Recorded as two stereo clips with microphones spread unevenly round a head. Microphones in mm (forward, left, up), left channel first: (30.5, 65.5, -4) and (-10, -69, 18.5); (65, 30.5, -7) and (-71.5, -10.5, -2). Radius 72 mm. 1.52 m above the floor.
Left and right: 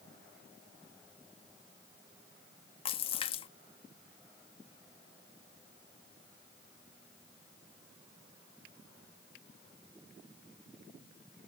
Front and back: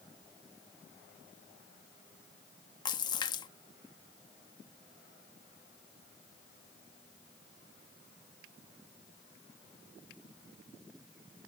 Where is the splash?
45° left.